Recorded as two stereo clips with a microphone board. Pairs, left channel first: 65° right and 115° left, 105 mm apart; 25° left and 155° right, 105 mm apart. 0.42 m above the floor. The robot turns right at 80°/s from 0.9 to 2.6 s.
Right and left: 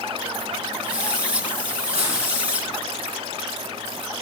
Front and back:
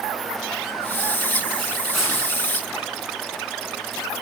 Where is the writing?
110° left, 4 m; by 2.2 s 135° left, 4 m.